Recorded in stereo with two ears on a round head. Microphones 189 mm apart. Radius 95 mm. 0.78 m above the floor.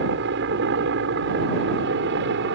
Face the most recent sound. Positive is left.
turn(degrees=-60)  # may be behind; listen again after turning